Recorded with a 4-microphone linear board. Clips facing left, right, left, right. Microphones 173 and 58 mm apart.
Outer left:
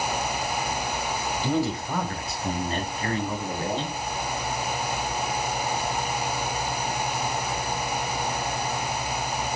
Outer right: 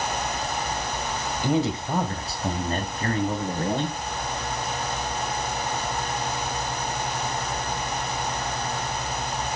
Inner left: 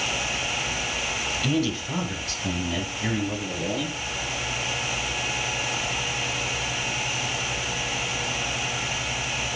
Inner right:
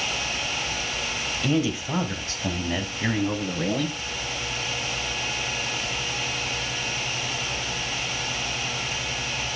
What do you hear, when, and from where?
1.4 s a man speaking: 15° right (ahead or behind), 1.4 m; by 4.0 s 50° right (ahead or behind), 3 m